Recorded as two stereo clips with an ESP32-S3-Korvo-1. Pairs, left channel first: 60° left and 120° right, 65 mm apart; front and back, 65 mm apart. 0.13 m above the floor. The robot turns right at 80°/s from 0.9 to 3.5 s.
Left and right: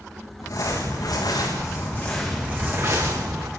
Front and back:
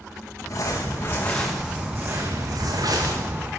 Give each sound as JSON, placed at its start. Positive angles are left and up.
{"t": 0.4, "sound": "crumpling", "azimuth_deg": 40, "distance_m": 8.0}